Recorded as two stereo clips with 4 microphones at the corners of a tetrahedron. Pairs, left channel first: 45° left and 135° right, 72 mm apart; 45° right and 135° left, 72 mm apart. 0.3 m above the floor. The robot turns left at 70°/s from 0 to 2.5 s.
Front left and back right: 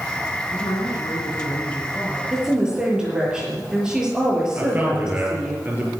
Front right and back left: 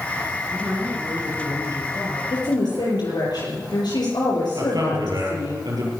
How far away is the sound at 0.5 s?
About 4 m.